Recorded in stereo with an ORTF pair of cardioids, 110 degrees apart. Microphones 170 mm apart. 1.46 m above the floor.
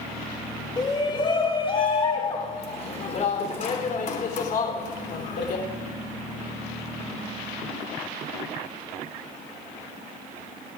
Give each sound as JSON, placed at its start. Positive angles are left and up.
{"t": 0.8, "sound": "a shout", "azimuth_deg": 25, "distance_m": 4.0}